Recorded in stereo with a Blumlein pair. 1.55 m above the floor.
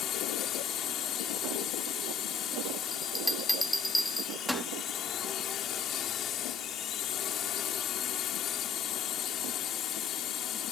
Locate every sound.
0.0 s a drone: 30° left
2.9 s a bell: straight ahead